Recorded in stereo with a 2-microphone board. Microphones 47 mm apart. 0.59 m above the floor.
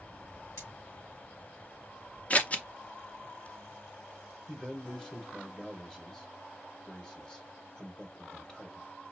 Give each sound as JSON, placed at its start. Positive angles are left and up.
{"t": 0.6, "sound": "cutlery clinking", "side_deg": 85, "distance_m": 4.0}
{"t": 2.3, "sound": "scissors", "side_deg": 30, "distance_m": 0.6}
{"t": 4.5, "sound": "a man speaking", "side_deg": 10, "distance_m": 1.2}